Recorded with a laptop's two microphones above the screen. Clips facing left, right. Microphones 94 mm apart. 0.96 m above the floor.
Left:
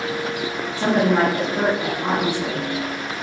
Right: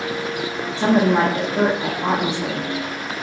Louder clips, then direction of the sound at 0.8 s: Right 2 dB; 15° right (ahead or behind).